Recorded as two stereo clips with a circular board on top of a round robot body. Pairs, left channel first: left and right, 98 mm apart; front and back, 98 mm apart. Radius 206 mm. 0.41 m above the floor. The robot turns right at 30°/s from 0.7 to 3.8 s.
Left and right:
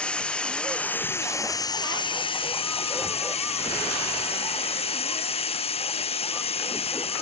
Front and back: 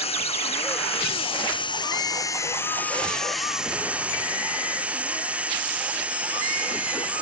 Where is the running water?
10° left; by 7.2 s 105° left.